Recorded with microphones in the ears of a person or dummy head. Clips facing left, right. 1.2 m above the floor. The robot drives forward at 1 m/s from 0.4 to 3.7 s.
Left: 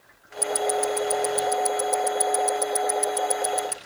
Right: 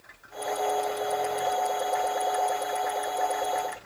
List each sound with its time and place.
0.4 s ticking: 65° left (ahead or behind); by 3.8 s 75° left (ahead or behind)